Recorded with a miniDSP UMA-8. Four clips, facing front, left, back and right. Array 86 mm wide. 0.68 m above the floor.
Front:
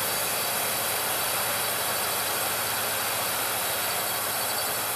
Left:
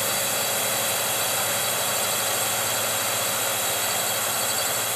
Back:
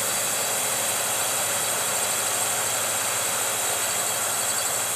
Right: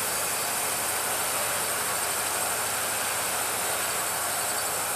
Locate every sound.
0.0 s a drone: 110° left